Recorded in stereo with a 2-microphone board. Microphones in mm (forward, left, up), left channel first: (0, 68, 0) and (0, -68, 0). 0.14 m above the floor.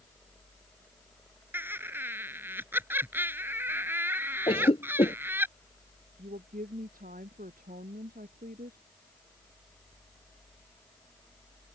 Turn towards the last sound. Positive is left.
turn(degrees=-80)